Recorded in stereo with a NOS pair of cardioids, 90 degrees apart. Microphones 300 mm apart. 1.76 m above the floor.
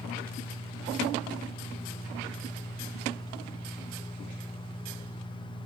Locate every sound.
0.0 s a fan: 15° left, 0.9 m